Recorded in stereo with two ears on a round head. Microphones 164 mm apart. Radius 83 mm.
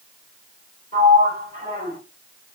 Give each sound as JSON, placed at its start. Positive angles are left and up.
{"t": 0.9, "sound": "a sliding door", "side_deg": 30, "distance_m": 1.9}